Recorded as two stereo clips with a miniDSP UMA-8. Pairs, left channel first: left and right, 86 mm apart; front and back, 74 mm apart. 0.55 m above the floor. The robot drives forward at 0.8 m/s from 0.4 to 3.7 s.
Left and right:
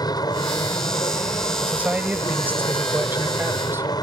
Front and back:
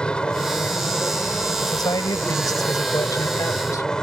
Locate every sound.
0.0 s an aircraft: 75° left; by 4.0 s 80° left
1.6 s a man speaking: 20° right; by 3.9 s 30° right